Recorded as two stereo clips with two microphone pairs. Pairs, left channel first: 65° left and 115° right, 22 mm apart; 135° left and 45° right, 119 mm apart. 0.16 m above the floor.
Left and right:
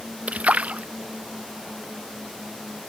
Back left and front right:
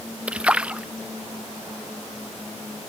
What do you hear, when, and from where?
0.3 s a splash: 125° right